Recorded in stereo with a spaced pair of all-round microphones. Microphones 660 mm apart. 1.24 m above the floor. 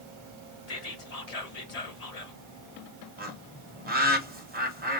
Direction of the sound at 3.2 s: 15° right (ahead or behind).